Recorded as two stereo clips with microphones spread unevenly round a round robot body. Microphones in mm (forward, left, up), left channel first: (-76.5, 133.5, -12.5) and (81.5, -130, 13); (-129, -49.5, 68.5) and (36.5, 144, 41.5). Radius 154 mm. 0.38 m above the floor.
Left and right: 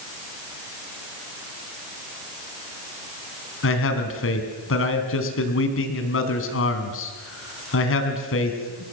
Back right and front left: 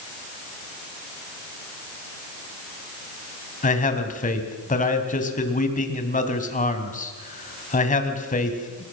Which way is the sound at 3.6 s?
170° left.